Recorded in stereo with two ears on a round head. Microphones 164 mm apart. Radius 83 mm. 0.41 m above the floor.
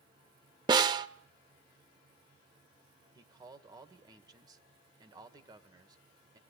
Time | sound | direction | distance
0.7 | a snare drum | 25° right (ahead or behind) | 0.6 m
3.1 | a man speaking | 20° right (ahead or behind) | 1.7 m